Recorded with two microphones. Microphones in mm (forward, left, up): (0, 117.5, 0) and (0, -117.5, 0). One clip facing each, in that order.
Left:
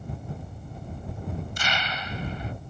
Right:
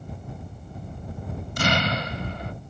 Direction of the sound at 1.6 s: 65° right (ahead or behind).